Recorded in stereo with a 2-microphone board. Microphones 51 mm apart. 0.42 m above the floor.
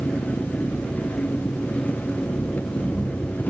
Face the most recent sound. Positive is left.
turn(degrees=35)  # may be behind; listen again after turning